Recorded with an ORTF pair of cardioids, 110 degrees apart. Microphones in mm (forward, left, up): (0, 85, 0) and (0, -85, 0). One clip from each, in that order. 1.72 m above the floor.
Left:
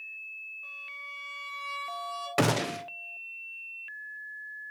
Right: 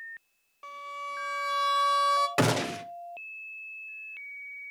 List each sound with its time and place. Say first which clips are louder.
0.6 s a violin: right 2 dB; 70° right, 1.8 m
2.4 s a gunshot: right 1 dB; straight ahead, 1.1 m